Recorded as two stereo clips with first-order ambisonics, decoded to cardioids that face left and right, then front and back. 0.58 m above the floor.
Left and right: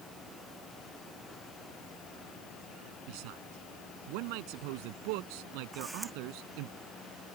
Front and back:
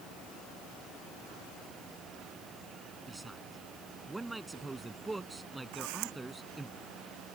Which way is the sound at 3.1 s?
95° right.